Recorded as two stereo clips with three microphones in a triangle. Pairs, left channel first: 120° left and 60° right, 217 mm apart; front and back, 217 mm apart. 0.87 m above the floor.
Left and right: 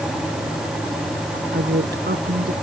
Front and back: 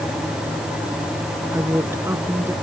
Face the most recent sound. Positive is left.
turn(degrees=-100)